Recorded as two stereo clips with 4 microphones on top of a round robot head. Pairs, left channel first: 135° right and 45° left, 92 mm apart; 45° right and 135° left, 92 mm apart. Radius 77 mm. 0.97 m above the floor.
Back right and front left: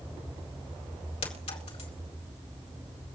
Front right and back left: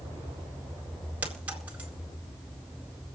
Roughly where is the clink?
Behind right.